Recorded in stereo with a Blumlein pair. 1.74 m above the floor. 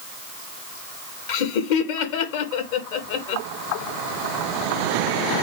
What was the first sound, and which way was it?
Laughter, 50° left.